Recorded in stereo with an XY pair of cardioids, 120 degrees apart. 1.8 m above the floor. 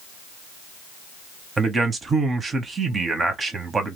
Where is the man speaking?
30° right, 1.1 m.